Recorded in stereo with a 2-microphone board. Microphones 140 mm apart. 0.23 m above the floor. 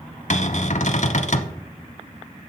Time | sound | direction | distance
0.3 | a cupboard door | 60° left (ahead or behind) | 0.8 m